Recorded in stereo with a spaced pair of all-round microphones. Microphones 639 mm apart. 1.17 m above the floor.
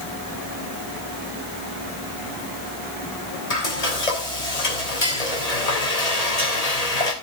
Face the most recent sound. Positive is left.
turn(degrees=75)  # may be behind; listen again after turning